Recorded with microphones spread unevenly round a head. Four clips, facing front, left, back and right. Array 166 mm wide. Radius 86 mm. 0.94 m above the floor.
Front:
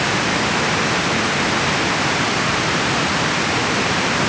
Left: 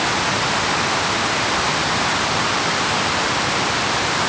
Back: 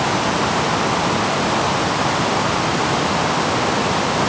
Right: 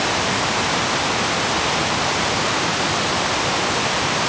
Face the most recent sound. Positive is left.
No sound to turn to.